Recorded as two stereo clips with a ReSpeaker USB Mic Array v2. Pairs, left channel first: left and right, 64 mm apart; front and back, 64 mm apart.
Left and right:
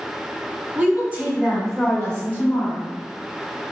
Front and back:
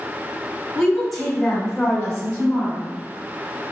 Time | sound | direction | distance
0.8 | a woman speaking | 85° right | 1.6 m